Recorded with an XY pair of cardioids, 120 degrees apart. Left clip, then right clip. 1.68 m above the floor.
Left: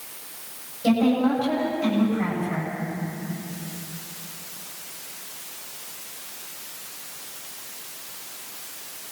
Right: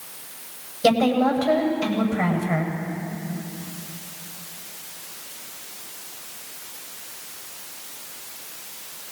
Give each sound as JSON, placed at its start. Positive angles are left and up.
{"t": 0.8, "sound": "a woman speaking", "azimuth_deg": -65, "distance_m": 9.0}